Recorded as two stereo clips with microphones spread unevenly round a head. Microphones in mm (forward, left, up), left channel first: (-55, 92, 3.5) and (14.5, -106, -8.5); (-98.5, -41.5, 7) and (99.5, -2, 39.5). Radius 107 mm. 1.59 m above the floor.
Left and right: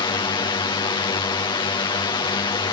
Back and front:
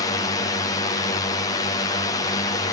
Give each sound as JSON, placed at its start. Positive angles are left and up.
{"t": 0.0, "sound": "a drone", "azimuth_deg": 160}